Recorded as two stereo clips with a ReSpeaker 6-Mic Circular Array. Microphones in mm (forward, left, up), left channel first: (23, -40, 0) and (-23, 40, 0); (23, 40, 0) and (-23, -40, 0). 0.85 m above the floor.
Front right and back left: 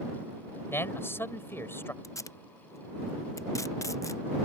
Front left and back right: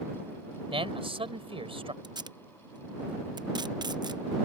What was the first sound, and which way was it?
A man speaking, 125° right.